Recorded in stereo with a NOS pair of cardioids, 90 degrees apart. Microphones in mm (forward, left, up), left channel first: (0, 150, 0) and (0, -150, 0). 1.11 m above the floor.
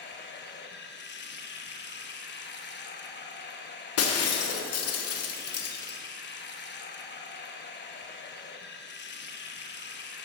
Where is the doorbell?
I don't hear a doorbell.